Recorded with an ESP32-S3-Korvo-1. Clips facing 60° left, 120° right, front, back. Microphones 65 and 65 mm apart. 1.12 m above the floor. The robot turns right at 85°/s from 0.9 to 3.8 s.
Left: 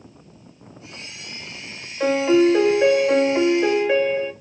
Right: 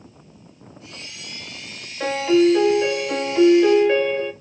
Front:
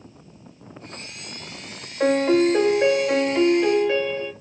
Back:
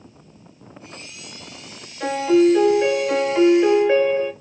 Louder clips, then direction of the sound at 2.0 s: Left 1 dB, back 2 dB; 25° right.